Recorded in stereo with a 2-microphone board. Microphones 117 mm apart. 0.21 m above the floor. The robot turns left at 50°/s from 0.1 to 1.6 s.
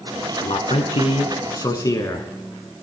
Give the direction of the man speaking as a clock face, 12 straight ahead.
9 o'clock.